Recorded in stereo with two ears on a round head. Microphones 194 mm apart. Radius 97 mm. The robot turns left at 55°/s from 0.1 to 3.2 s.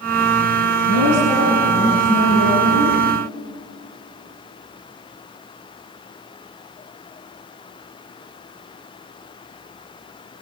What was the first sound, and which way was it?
A woman speaking, 65° left.